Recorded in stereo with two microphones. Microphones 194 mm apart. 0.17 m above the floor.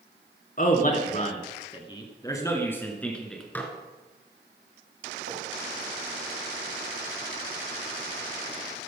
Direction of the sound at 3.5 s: 10° left (ahead or behind).